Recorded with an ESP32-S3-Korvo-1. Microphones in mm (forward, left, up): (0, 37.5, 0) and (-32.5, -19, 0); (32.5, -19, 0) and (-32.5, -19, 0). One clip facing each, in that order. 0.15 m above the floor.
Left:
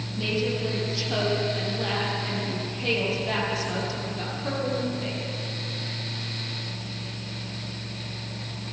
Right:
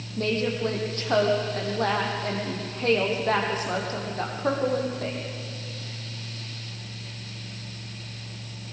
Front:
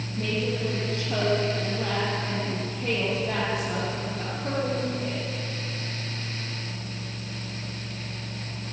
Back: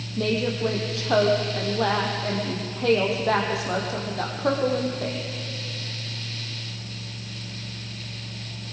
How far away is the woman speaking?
About 5 m.